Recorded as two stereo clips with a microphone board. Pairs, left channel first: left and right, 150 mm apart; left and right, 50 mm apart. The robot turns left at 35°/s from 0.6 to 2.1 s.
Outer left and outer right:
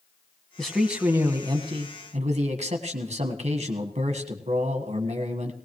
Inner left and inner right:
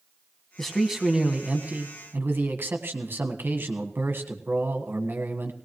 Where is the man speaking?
5° left, 1.4 m; by 5.5 s 45° right, 1.4 m.